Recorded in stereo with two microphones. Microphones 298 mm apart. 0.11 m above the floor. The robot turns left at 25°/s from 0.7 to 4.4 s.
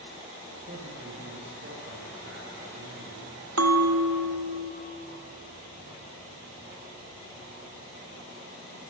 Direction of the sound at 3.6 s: 60° right (ahead or behind).